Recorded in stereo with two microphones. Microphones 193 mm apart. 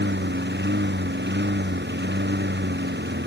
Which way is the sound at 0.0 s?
60° right (ahead or behind).